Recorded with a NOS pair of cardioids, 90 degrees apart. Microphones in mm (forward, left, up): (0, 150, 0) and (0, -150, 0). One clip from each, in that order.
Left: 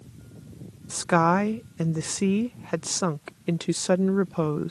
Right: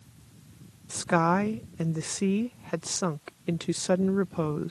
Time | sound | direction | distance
0.9 | a woman speaking | 15° left | ?